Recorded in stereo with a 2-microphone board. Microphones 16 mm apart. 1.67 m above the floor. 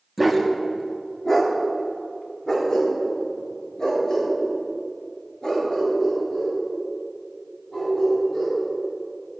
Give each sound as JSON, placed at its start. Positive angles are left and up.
{"t": 0.2, "sound": "a dog barking", "side_deg": 0, "distance_m": 1.1}